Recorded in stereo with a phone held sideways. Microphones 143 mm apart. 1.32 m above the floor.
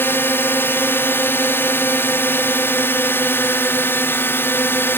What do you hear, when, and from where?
0.0 s a drone: 15° left (ahead or behind)